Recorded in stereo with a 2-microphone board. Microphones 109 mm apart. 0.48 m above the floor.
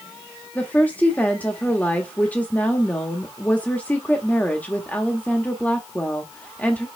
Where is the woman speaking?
15° left (ahead or behind), 1.1 m.